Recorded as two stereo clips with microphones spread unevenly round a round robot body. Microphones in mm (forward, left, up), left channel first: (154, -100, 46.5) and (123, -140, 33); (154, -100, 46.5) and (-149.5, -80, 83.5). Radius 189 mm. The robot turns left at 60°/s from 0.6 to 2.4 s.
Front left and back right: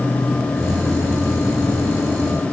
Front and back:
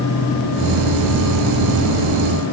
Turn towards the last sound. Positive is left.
No sound to turn to.